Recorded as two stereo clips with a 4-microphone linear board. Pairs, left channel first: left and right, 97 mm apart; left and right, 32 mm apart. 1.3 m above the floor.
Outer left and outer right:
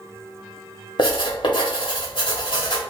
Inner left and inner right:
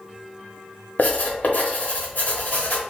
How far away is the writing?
About 0.9 m.